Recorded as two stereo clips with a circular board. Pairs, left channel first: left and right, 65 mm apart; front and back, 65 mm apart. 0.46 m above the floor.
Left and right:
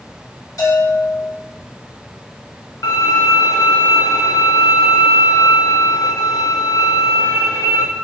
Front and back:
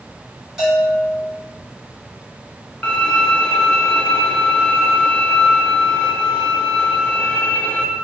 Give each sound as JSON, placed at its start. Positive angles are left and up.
{"t": 0.6, "sound": "a bell", "azimuth_deg": 100, "distance_m": 1.9}
{"t": 2.8, "sound": "a violin", "azimuth_deg": 70, "distance_m": 0.6}